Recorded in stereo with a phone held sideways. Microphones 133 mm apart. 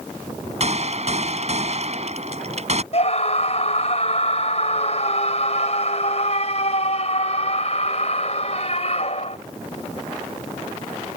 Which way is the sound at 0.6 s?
50° right (ahead or behind).